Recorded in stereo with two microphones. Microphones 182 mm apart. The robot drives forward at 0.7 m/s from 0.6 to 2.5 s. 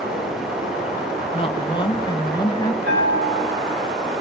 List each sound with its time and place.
1.3 s a woman speaking: 30° left (ahead or behind), 1.4 m; by 2.8 s 25° left (ahead or behind), 1.9 m
2.9 s a bell: 75° right (ahead or behind), 9 m